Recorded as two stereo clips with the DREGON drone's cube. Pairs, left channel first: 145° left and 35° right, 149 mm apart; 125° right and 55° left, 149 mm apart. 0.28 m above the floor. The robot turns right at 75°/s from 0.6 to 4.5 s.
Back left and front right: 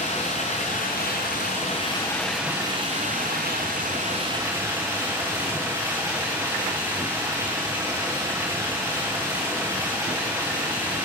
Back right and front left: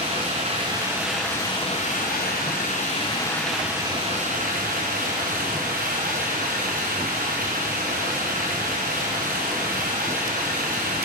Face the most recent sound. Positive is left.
turn(degrees=35)